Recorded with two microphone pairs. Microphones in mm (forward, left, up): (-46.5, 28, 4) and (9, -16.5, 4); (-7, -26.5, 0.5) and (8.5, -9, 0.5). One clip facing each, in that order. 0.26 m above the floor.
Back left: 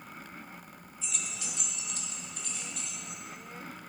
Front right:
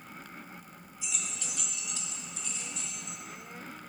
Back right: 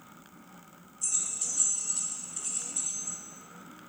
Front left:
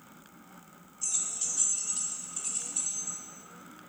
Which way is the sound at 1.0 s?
30° left.